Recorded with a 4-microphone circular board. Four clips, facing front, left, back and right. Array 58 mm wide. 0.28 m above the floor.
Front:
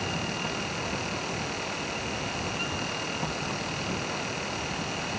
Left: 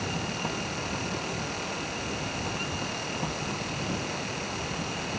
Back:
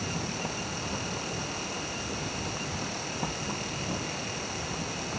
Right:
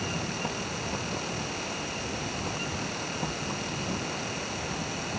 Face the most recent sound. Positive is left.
No sound to turn to.